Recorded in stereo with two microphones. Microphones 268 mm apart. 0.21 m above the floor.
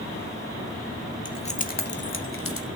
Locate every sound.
1.2 s keys jangling: 15° left (ahead or behind), 0.7 m; by 2.7 s 55° left (ahead or behind), 1.2 m